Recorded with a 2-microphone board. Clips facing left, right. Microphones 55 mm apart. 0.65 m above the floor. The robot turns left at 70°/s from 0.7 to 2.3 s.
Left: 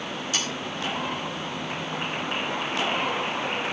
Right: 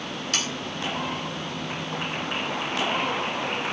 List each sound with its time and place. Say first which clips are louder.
0.3 s sawing: right 1 dB; 65° right (ahead or behind), 4 m